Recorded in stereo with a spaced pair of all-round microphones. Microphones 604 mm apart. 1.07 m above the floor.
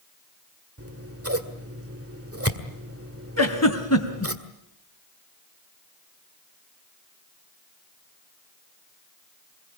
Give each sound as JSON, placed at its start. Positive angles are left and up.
{"t": 0.8, "sound": "scissors", "side_deg": -25, "distance_m": 1.8}
{"t": 3.4, "sound": "a giggle", "side_deg": 25, "distance_m": 2.5}